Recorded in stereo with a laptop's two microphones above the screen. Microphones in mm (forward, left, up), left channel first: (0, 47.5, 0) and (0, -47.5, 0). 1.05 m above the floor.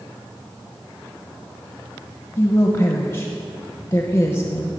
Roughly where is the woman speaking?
Left.